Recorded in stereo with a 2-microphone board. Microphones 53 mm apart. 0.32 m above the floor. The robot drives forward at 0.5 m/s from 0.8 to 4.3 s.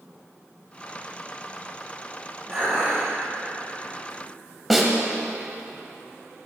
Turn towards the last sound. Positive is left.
turn(degrees=0)  # may be behind; listen again after turning